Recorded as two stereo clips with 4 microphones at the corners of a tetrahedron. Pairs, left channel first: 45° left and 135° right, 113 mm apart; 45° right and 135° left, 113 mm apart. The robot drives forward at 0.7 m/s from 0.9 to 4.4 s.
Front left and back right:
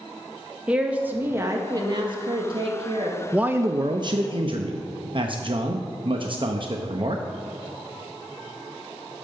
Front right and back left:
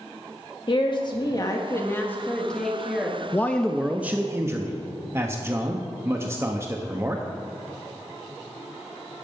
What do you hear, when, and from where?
0.7 s a woman speaking: 60° right, 1.3 m; by 3.2 s 140° right, 1.7 m
3.3 s a man speaking: 65° right, 0.5 m; by 7.2 s 165° right, 0.8 m